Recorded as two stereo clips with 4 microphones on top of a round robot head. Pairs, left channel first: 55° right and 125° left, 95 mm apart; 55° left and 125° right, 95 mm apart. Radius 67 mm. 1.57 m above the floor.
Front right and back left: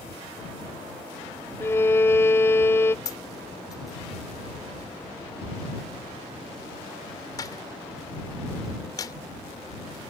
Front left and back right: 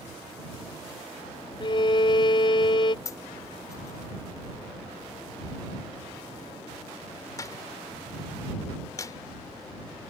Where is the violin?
10° left.